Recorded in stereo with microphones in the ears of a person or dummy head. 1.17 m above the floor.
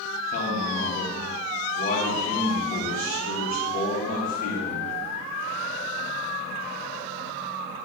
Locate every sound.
0.3 s a man speaking: 45° left (ahead or behind), 1.3 m